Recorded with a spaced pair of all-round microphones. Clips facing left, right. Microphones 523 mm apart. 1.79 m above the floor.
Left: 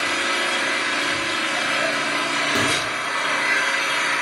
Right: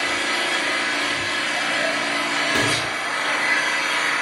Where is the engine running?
30° left (ahead or behind), 0.8 m.